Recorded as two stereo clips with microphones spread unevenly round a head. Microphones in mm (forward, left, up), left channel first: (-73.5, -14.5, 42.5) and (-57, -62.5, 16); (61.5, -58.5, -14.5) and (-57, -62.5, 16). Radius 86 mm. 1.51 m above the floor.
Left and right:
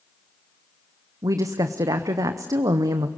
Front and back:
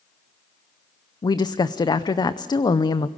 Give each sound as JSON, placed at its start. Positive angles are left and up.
{"t": 1.2, "sound": "a woman speaking", "azimuth_deg": -55, "distance_m": 0.7}